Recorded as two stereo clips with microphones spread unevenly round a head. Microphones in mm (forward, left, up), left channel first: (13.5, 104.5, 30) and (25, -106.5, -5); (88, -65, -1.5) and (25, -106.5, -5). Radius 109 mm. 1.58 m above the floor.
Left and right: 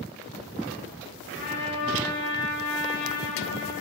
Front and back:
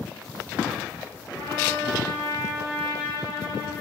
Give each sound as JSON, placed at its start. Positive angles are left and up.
{"t": 1.4, "sound": "a trumpet", "azimuth_deg": 65, "distance_m": 9.5}